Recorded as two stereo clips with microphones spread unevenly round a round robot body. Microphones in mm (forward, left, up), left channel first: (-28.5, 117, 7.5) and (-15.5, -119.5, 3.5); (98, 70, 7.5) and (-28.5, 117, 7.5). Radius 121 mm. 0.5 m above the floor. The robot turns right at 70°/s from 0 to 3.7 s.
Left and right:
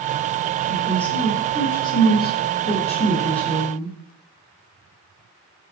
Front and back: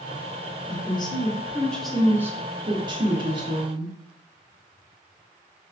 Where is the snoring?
No snoring in this recording.